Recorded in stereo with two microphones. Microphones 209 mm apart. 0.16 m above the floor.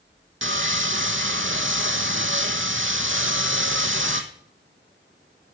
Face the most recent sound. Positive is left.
turn(degrees=-70)  # may be behind; listen again after turning